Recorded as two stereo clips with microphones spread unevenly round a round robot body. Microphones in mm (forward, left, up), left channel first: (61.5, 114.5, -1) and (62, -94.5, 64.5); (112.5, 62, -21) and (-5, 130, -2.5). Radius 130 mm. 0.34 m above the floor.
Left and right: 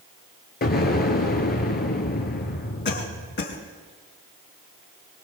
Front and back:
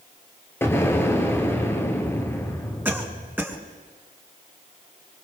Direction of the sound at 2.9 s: 75° left.